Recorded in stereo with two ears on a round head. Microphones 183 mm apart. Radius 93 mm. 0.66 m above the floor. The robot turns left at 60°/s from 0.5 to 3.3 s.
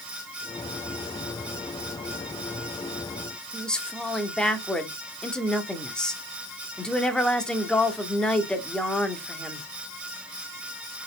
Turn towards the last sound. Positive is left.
turn(degrees=5)  # may be behind; listen again after turning